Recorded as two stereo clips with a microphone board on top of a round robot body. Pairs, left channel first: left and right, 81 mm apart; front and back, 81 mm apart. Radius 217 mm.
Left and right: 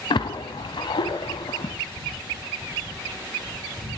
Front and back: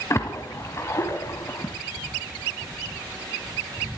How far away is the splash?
About 1.0 m.